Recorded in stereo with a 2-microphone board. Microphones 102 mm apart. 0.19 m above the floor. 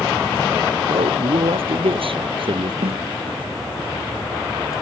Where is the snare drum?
75° right (ahead or behind).